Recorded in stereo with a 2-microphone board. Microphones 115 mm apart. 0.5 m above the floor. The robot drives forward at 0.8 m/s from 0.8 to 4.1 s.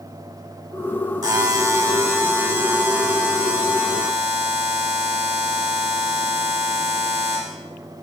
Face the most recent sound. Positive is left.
turn(degrees=-15)  # may be behind; listen again after turning